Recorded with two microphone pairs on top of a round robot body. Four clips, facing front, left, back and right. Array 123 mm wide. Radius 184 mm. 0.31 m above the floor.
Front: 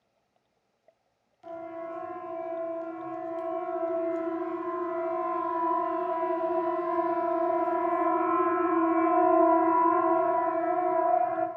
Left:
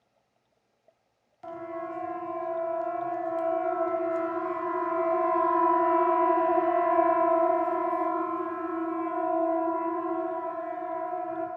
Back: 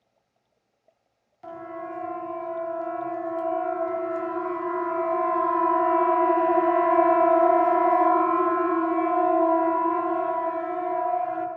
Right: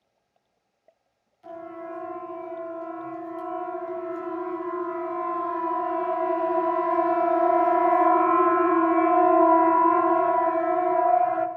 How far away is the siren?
About 5 m.